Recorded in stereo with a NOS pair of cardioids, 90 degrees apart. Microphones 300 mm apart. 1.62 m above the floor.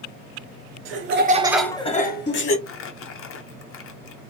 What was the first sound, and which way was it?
Laughter, 60° right.